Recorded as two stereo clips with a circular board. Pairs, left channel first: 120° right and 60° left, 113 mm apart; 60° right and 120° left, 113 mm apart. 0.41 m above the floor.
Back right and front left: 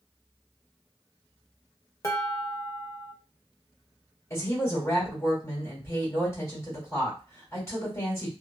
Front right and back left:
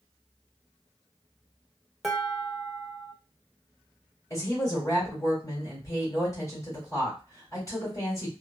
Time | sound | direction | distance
2.0 | dishes clattering | 155° right | 0.7 m
4.3 | a woman speaking | 90° right | 1.6 m